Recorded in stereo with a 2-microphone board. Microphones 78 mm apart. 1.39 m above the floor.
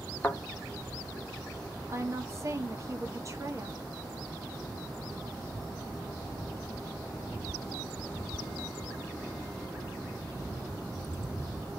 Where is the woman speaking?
40° right (ahead or behind), 1.0 m.